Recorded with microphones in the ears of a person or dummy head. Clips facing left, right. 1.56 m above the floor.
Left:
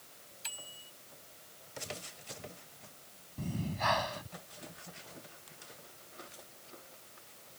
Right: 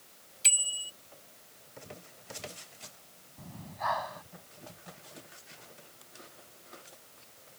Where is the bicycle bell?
40° right (ahead or behind).